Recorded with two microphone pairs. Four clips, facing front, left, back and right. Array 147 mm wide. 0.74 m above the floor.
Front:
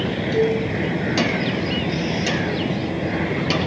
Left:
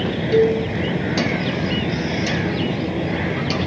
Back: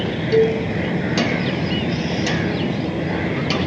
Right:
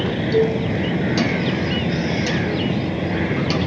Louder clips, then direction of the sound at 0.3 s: Left 3 dB, back 4 dB; 155° left.